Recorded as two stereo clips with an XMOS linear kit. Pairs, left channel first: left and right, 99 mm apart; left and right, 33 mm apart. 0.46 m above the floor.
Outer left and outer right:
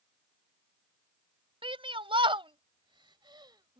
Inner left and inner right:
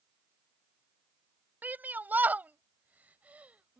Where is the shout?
70° right (ahead or behind); by 3.8 s 45° right (ahead or behind).